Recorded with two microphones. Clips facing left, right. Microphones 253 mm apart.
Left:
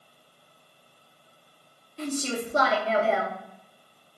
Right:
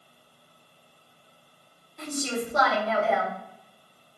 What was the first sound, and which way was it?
A woman speaking, 30° left (ahead or behind).